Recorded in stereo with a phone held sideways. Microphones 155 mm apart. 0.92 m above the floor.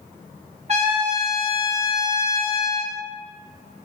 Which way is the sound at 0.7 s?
45° right (ahead or behind).